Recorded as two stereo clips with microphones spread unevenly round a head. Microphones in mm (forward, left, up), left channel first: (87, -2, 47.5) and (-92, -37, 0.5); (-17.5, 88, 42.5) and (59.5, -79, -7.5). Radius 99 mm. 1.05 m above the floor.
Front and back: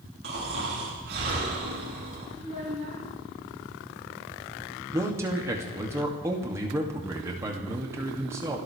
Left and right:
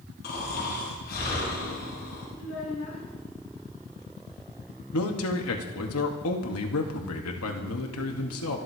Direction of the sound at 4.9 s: 120° left.